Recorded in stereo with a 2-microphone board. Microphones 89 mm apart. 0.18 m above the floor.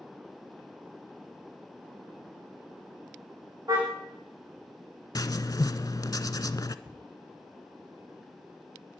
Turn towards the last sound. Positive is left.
turn(degrees=-45)  # may be behind; listen again after turning